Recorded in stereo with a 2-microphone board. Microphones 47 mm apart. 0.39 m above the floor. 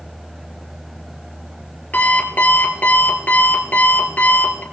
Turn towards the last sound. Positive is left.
turn(degrees=40)  # may be behind; listen again after turning